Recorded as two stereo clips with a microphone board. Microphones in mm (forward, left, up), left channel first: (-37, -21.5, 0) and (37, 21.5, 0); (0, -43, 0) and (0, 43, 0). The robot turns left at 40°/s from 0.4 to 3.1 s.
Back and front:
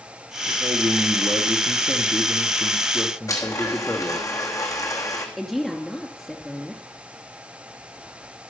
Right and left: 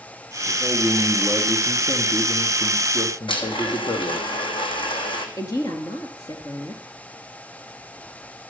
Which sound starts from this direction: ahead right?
A woman speaking, at 5.4 s.